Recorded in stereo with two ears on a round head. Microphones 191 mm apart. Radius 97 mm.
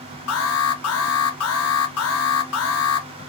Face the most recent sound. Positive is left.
turn(degrees=75)  # may be behind; listen again after turning